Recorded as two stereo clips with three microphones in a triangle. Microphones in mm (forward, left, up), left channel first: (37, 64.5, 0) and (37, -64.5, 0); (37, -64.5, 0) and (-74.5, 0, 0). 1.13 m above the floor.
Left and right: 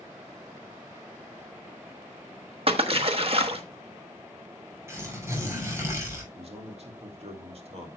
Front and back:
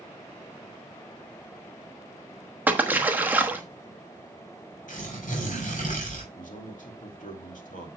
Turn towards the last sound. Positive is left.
turn(degrees=-45)